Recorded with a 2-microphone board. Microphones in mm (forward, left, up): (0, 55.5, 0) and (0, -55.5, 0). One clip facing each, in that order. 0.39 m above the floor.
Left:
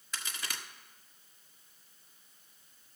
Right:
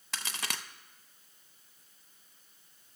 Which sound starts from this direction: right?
A crack, at 0.1 s.